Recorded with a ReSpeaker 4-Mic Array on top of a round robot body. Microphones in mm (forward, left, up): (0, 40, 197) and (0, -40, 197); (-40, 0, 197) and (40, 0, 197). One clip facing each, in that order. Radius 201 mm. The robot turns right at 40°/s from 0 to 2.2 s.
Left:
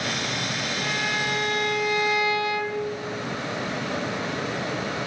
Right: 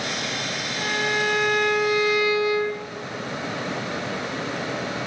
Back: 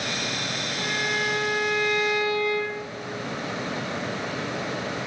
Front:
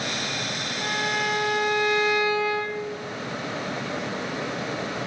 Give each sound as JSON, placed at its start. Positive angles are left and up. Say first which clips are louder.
{"t": 0.8, "sound": "a violin", "louder": "right 5 dB, front 1 dB", "azimuth_deg": -15, "distance_m": 1.7}